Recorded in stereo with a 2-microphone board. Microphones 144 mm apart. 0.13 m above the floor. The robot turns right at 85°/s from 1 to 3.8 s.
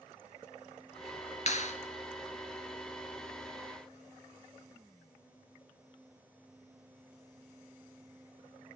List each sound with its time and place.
1.5 s a clap: 50° left (ahead or behind), 2.5 m